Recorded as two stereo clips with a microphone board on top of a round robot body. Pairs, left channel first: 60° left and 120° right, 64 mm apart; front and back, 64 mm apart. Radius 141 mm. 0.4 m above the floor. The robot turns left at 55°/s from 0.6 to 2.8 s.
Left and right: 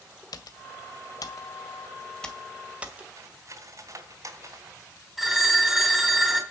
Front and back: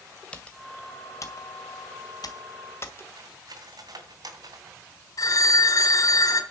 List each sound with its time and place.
0.3 s typing on a keyboard: 75° left, 1.9 m; by 3.1 s 50° right, 1.9 m
3.2 s cutlery clinking: 160° right, 2.5 m
5.2 s a phone ringing: 35° right, 5 m